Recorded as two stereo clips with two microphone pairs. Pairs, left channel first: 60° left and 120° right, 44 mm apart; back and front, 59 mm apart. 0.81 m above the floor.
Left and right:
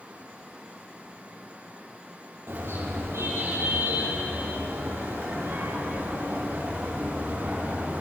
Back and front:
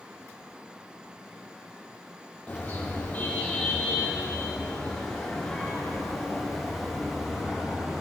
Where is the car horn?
120° right, 9.5 m; by 8.0 s 80° right, 9 m.